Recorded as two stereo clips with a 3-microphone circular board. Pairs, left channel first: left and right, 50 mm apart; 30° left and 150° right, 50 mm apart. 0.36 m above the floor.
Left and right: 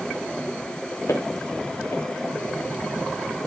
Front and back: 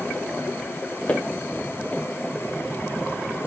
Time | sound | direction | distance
1.1 | footsteps | 85° left | 4 m